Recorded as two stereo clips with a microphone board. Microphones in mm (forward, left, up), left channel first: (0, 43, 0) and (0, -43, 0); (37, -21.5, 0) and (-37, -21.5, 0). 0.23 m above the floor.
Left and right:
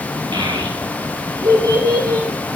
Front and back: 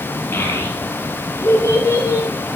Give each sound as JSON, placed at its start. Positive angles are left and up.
{"t": 0.3, "sound": "a child speaking", "azimuth_deg": -65, "distance_m": 4.0}